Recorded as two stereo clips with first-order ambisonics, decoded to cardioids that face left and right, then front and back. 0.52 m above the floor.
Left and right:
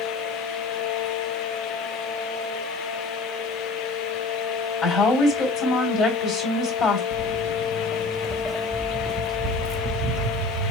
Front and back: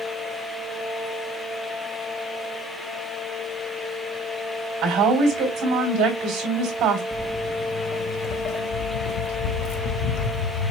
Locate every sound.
4.8 s a woman speaking: 145° left, 2.5 m
7.1 s footsteps: 105° left, 0.7 m; by 10.7 s 25° right, 1.7 m